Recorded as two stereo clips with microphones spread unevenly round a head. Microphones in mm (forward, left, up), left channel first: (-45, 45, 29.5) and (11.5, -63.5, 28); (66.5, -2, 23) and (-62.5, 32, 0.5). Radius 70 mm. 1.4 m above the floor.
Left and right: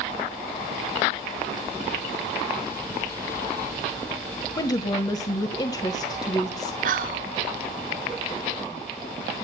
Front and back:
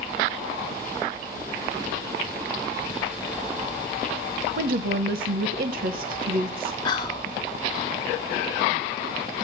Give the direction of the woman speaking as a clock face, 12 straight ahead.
6 o'clock.